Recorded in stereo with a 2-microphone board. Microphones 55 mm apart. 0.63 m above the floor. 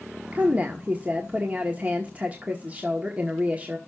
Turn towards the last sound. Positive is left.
turn(degrees=-30)  # may be behind; listen again after turning